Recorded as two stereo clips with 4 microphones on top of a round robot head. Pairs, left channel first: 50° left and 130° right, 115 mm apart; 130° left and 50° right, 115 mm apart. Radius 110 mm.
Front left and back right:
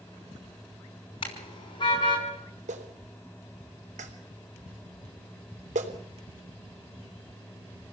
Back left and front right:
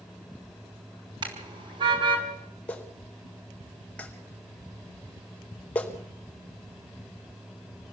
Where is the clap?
150° right, 3.5 m.